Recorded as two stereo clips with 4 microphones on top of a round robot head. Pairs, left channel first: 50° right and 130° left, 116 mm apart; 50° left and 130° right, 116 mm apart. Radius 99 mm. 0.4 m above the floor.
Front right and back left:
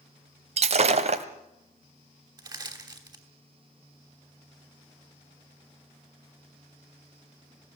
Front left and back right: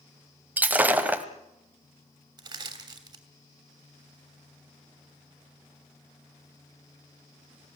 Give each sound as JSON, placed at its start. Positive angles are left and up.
{"t": 0.6, "sound": "breaking glass", "azimuth_deg": 155, "distance_m": 1.3}
{"t": 2.4, "sound": "crushing", "azimuth_deg": 180, "distance_m": 3.0}